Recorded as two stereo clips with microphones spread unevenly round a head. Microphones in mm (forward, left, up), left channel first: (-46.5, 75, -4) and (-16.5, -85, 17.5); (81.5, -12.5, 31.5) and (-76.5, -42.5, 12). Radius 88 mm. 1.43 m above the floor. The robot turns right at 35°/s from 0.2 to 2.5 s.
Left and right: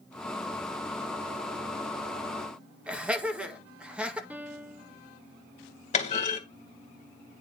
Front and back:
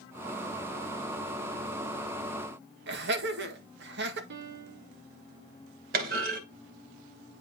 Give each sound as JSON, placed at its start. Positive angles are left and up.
{"t": 2.9, "sound": "laughter", "azimuth_deg": -160, "distance_m": 1.8}
{"t": 4.3, "sound": "a piano", "azimuth_deg": -155, "distance_m": 1.2}
{"t": 5.9, "sound": "a clunk", "azimuth_deg": 150, "distance_m": 2.5}